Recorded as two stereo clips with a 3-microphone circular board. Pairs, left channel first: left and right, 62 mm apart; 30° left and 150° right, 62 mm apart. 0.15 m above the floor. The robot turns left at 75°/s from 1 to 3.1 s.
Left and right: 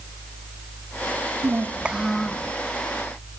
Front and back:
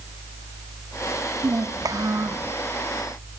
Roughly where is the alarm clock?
I don't hear an alarm clock.